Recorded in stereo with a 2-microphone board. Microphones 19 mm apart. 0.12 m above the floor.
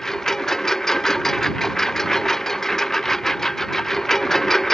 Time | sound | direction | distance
0.0 | a lawn mower | 25° left (ahead or behind) | ?